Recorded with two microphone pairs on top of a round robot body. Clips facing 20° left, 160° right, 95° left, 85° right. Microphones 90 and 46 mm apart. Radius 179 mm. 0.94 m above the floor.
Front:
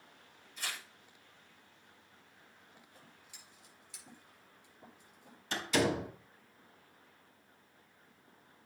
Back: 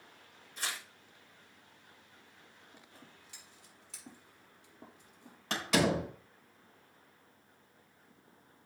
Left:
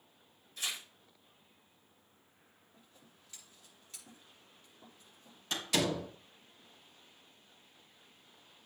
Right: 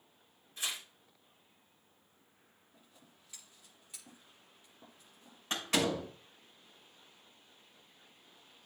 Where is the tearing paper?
145° right, 5.5 m.